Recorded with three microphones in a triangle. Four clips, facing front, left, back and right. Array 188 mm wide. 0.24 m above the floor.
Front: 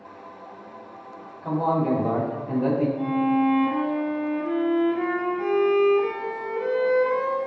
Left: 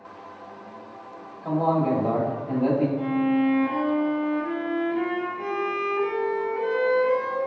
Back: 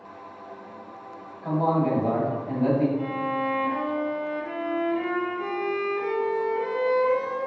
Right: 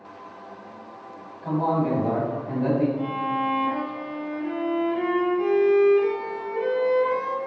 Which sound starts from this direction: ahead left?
A violin, at 3.0 s.